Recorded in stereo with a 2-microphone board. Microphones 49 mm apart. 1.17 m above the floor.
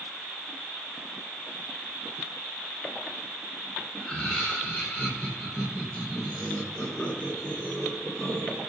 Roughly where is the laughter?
Left.